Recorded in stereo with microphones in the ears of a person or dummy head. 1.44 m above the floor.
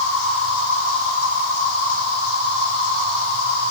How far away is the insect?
About 2.5 m.